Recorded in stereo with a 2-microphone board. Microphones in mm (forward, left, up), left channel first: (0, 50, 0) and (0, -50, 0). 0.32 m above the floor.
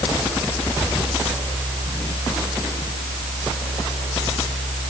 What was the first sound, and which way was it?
Only background noise.